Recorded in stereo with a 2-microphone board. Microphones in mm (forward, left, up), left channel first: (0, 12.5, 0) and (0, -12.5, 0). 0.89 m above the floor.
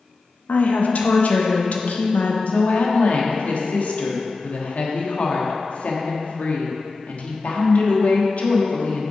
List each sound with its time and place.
0.5 s a woman speaking: 70° left (ahead or behind), 1.0 m
2.5 s a woman speaking: 60° left (ahead or behind), 1.3 m